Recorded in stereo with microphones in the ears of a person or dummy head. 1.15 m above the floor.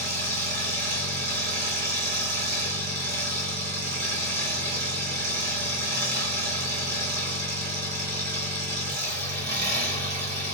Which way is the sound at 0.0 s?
45° right (ahead or behind).